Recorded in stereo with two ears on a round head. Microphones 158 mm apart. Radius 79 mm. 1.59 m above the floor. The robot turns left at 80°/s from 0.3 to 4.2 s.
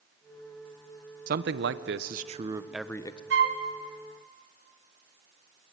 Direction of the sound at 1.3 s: 55° right.